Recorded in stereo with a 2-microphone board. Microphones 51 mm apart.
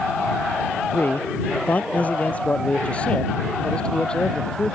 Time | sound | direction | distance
0.9 | a man speaking | 40° left (ahead or behind) | ?